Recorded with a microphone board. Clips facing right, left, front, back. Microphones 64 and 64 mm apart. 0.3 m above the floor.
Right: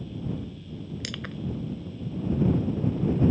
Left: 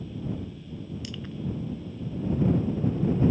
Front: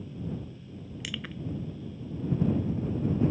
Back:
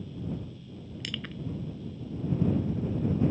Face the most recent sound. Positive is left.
turn(degrees=-85)